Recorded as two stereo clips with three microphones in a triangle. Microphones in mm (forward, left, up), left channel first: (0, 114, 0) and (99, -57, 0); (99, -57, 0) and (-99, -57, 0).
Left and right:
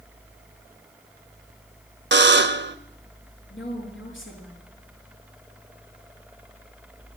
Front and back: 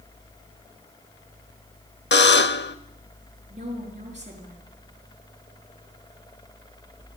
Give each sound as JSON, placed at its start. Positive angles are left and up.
{"t": 2.1, "sound": "a buzzer", "azimuth_deg": -30, "distance_m": 0.6}
{"t": 3.5, "sound": "a woman speaking", "azimuth_deg": 125, "distance_m": 5.5}